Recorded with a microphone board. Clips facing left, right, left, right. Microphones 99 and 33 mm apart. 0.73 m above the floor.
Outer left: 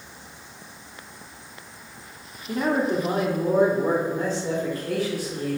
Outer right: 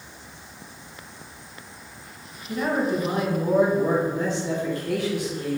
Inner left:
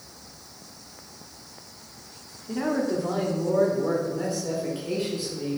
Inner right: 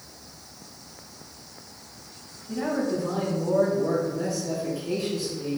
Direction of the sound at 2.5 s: 55° left (ahead or behind).